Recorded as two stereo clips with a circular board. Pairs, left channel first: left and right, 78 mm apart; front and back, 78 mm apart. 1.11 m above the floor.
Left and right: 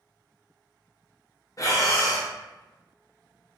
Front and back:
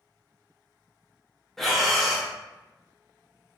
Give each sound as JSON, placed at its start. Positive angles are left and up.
{"t": 1.6, "sound": "breathing", "azimuth_deg": 85, "distance_m": 0.7}